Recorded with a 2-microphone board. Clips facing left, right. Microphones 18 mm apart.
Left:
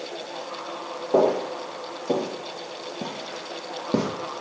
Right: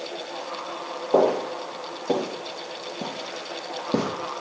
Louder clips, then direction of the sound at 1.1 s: Even; 20° right (ahead or behind).